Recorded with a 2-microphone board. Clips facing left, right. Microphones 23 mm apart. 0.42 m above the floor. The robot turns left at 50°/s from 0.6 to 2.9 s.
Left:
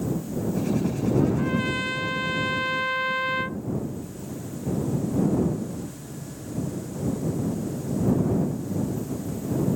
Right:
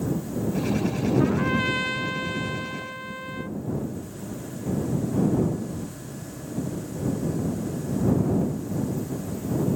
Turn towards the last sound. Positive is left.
turn(degrees=135)